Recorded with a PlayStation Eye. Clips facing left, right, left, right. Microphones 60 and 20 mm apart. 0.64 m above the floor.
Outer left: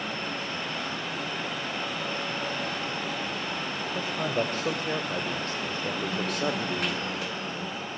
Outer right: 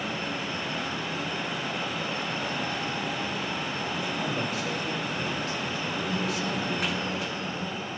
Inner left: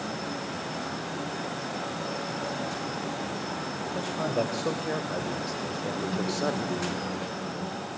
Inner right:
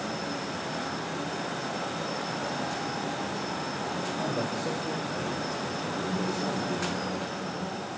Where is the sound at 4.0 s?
50° left (ahead or behind), 3 m; by 6.9 s 60° left (ahead or behind), 1.3 m.